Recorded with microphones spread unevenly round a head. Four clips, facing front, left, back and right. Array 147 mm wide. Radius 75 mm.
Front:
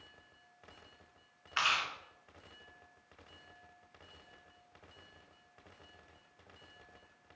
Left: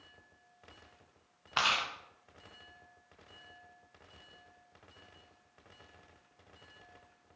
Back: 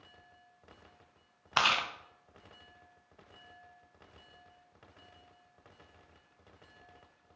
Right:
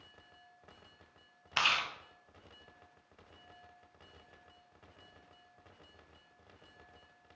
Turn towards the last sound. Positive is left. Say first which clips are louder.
# left 1 dB, back 4 dB
turn(degrees=175)